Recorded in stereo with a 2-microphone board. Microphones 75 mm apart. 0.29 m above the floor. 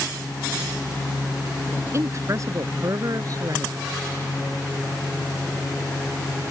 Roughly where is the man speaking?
Right.